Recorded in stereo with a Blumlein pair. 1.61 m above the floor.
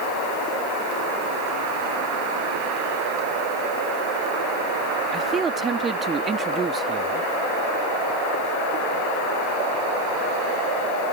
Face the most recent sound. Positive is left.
turn(degrees=-20)